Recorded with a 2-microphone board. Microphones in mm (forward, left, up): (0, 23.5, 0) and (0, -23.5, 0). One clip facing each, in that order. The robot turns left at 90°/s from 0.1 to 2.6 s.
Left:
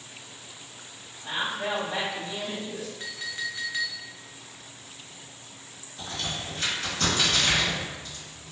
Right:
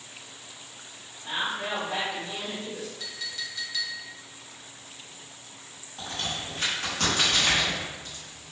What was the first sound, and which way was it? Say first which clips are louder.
A woman speaking: left 1 dB; 20° left.